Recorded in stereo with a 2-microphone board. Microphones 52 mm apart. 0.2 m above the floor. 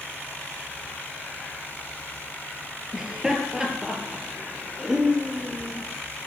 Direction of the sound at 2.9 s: 10° right (ahead or behind).